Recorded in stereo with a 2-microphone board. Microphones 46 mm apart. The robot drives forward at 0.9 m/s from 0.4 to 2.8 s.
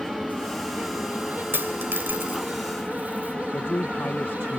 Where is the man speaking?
50° left (ahead or behind).